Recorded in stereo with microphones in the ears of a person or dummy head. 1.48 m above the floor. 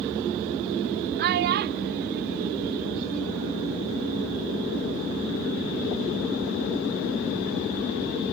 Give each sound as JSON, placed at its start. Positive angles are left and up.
{"t": 1.2, "sound": "a child speaking", "side_deg": -55}